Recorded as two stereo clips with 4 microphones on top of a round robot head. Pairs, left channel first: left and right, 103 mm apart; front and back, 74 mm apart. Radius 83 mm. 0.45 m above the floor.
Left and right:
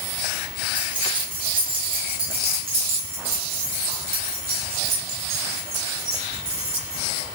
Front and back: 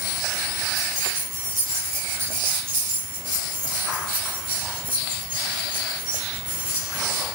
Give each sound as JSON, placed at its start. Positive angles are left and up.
{"t": 0.8, "sound": "keys jangling", "azimuth_deg": -130, "distance_m": 6.0}